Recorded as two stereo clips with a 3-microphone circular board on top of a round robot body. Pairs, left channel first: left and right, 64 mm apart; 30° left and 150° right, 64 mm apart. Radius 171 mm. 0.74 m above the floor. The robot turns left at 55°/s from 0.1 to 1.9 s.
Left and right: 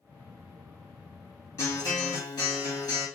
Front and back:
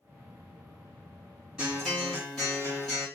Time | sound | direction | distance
1.6 | a guitar | 130° left | 1.8 m